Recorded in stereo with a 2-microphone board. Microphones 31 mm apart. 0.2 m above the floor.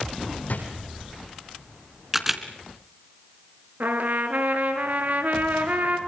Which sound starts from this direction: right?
A trumpet, at 3.8 s.